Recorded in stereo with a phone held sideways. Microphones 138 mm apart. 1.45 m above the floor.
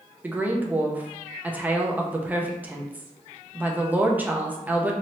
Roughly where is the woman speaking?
Centre.